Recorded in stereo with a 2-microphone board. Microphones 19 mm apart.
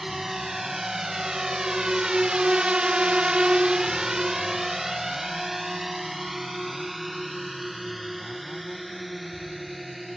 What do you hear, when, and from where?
0.0 s a drone: 15° right (ahead or behind); by 10.2 s 5° right (ahead or behind)